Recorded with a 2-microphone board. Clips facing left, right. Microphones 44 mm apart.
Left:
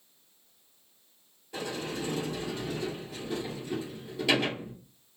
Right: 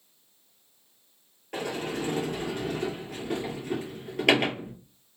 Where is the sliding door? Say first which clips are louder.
Right 3 dB; 60° right (ahead or behind), 2.0 m.